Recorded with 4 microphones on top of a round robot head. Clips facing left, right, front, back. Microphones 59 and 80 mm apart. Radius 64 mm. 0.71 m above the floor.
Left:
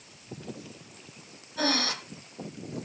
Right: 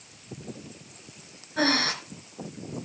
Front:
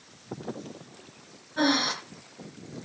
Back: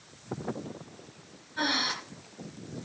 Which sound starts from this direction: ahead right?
Breathing, at 1.6 s.